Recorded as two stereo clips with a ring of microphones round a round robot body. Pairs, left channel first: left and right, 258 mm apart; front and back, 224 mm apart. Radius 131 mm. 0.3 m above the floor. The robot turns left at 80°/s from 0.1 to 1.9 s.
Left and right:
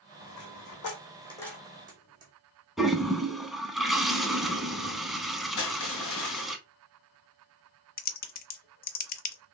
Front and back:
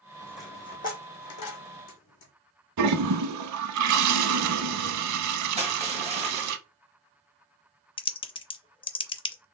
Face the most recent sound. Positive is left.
turn(degrees=55)